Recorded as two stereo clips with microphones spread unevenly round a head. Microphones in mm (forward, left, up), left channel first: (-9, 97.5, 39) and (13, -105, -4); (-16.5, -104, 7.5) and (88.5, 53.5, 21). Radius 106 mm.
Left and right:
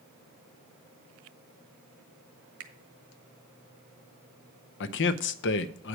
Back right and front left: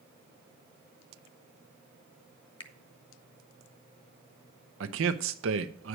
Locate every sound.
2.6 s a finger snap: 60° right, 1.2 m
4.8 s a man speaking: 75° left, 0.6 m